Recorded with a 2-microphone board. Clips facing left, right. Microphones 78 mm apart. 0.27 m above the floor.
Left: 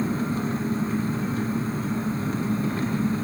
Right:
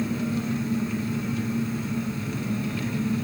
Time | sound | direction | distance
0.0 | an engine running | 40° left (ahead or behind) | 1.9 m